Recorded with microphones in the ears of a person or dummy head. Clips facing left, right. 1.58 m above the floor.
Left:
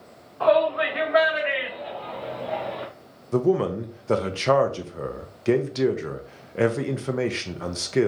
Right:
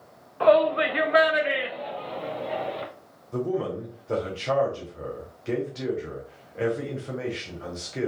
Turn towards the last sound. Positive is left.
turn(degrees=60)  # may be behind; listen again after turning